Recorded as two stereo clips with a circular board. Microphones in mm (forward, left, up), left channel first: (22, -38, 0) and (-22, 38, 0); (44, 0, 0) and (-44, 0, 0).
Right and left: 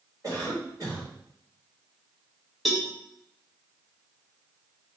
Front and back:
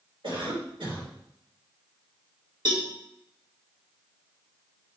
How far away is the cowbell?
About 1.5 m.